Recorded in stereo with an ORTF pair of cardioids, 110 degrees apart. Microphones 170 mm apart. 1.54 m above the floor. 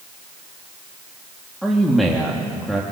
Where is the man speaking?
Straight ahead, 2.5 m.